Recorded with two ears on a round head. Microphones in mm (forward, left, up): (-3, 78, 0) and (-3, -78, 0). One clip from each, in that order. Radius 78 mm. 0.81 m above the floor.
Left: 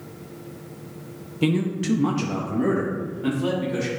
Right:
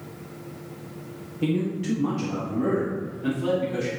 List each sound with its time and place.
1.4 s a man speaking: 40° left (ahead or behind), 0.7 m; by 3.9 s 10° left (ahead or behind), 1.5 m